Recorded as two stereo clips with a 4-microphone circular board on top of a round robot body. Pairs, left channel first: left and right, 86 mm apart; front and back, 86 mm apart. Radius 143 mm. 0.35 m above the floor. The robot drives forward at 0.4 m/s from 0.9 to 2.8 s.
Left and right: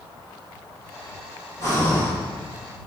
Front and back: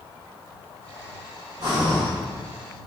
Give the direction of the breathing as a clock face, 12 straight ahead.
7 o'clock.